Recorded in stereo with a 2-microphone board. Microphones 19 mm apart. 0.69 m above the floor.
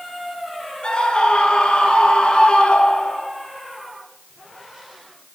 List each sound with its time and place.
0.8 s a scream: 45° left (ahead or behind), 8 m; by 3.3 s 55° left (ahead or behind), 7 m